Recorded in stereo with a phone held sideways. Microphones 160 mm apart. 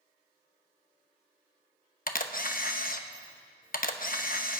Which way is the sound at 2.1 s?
60° left (ahead or behind).